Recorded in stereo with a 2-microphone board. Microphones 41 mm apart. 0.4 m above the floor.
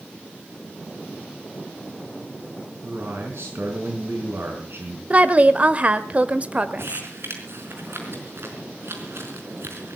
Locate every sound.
2.8 s a man speaking: 70° right (ahead or behind), 5 m
5.1 s a woman speaking: 35° right (ahead or behind), 1.3 m
6.8 s crumpling: 75° right (ahead or behind), 4.5 m